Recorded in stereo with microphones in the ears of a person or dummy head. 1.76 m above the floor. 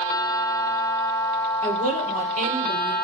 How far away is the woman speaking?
About 4.5 m.